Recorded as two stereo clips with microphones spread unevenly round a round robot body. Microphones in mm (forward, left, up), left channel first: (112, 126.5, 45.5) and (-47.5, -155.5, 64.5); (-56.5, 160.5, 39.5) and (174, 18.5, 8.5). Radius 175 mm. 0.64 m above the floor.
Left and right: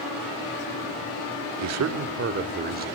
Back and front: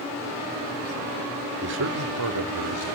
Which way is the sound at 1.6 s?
85° right.